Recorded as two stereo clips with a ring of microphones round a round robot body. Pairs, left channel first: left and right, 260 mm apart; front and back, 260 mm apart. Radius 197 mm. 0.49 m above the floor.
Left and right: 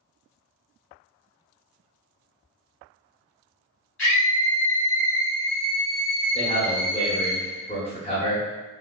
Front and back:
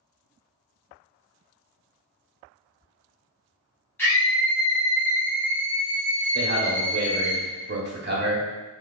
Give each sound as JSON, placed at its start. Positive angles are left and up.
{"t": 4.0, "sound": "a scream", "azimuth_deg": 80, "distance_m": 1.5}
{"t": 6.3, "sound": "a man speaking", "azimuth_deg": 150, "distance_m": 1.1}